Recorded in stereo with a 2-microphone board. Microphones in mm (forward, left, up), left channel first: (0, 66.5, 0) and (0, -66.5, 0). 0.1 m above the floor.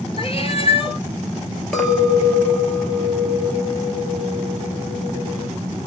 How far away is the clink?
About 1.2 m.